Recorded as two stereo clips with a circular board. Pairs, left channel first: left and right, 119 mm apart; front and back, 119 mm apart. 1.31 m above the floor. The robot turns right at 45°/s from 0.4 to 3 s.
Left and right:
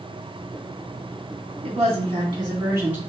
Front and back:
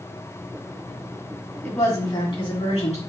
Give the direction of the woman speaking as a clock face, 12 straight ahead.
2 o'clock.